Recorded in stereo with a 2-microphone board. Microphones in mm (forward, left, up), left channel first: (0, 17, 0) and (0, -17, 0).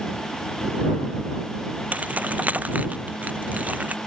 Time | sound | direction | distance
1.9 | keys jangling | 55° right (ahead or behind) | ?